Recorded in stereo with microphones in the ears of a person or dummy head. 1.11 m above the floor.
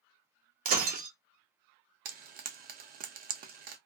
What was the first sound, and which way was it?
Breaking glass, 40° right (ahead or behind).